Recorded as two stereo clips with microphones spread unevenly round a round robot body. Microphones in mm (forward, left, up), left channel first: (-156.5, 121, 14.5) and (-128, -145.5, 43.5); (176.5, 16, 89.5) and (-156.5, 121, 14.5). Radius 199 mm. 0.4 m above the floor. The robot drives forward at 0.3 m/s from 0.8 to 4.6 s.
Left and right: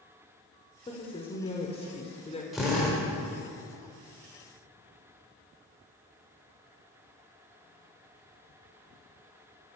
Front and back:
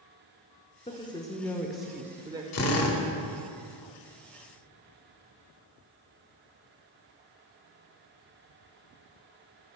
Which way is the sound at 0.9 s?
65° left.